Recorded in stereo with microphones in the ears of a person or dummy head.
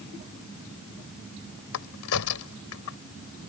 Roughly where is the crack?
Left.